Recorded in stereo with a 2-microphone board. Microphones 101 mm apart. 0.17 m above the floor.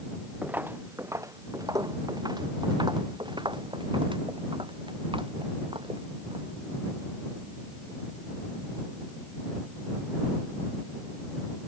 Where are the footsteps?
15° right (ahead or behind); by 6.4 s 65° right (ahead or behind).